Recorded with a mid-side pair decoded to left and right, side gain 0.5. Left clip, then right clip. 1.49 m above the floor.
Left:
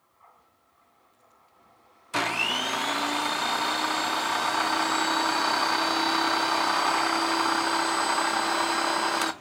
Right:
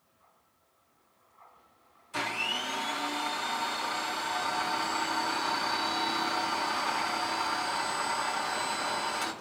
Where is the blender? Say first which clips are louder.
Left 5 dB; 60° left, 0.5 m.